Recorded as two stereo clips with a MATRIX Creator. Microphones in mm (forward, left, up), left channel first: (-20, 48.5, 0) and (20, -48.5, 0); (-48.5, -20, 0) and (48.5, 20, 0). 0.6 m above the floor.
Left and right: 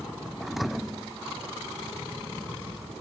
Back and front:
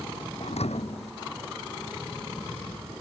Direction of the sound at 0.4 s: 155° right.